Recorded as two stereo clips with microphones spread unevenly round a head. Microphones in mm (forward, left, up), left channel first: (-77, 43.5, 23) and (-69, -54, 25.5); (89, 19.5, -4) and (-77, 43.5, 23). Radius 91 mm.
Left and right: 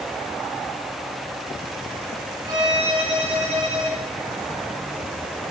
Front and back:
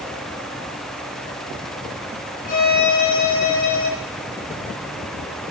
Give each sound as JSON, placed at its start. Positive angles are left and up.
{"t": 2.5, "sound": "a violin", "azimuth_deg": -35, "distance_m": 1.2}